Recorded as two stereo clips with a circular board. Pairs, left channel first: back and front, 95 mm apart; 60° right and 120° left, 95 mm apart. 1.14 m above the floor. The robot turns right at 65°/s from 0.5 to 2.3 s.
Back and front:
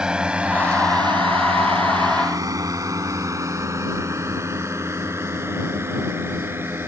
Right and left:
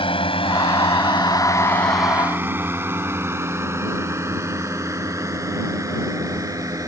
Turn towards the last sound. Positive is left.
turn(degrees=65)